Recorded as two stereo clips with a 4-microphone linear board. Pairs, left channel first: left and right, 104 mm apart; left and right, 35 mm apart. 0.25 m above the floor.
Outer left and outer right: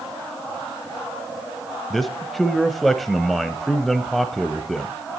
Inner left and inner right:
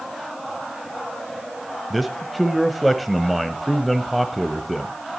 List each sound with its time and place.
1.9 s a man speaking: centre (ahead or behind), 0.9 m